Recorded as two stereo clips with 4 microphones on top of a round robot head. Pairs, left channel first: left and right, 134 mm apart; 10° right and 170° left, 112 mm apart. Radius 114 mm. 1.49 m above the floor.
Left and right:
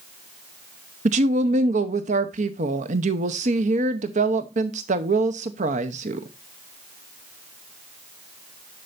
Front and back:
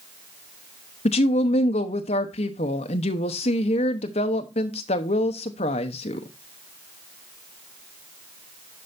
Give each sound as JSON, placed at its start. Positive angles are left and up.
{"t": 1.1, "sound": "a woman speaking", "azimuth_deg": -50, "distance_m": 0.7}